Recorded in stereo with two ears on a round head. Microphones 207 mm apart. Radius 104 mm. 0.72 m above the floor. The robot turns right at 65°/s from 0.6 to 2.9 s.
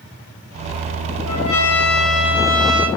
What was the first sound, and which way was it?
A trumpet, 85° left.